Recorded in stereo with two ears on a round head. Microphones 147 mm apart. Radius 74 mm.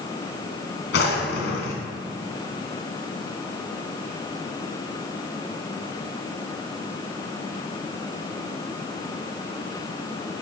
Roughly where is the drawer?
Left.